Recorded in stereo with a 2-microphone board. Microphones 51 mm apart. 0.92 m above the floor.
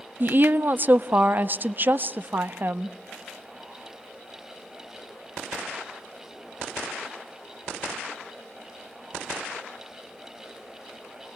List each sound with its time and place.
0.2 s a woman speaking: 40° right (ahead or behind), 0.7 m